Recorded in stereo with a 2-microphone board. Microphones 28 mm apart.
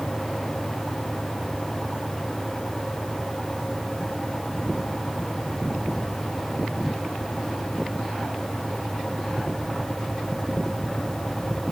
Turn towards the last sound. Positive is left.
No sound to turn to.